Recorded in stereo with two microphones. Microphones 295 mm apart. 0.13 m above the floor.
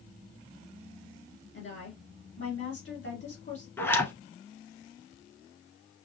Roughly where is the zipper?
Centre.